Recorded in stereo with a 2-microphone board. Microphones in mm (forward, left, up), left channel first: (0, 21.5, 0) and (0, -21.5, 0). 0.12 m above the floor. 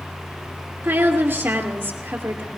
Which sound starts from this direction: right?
A woman speaking, at 0.8 s.